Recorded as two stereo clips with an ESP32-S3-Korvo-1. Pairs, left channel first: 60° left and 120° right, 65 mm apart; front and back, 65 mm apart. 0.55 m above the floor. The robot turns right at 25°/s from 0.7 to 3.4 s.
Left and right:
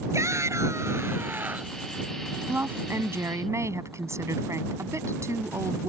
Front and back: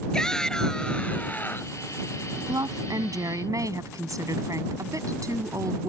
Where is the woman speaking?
Straight behind; by 5.9 s 155° right.